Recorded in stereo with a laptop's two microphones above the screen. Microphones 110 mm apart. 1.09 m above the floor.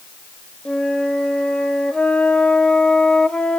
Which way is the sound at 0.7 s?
10° left (ahead or behind).